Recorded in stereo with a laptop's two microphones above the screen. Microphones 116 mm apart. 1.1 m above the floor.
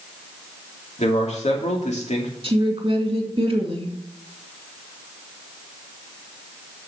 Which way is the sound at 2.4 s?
45° right (ahead or behind).